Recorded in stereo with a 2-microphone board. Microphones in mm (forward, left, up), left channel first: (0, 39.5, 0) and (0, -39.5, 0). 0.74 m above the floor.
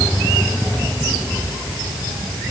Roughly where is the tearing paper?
No tearing paper in this recording.